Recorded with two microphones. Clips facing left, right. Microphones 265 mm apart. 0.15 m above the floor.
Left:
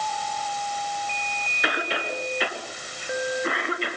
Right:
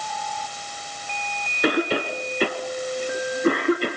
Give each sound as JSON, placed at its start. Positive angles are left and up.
{"t": 1.6, "sound": "a cough", "side_deg": -45, "distance_m": 1.7}